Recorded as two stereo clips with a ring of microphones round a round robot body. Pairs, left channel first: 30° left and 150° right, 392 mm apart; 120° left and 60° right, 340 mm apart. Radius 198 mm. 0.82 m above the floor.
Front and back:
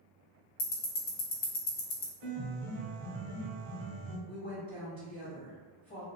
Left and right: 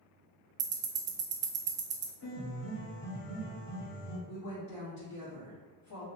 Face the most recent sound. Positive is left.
turn(degrees=95)